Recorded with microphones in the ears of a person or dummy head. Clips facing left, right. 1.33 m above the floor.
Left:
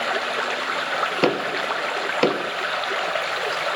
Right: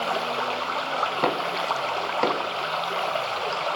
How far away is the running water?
About 0.7 m.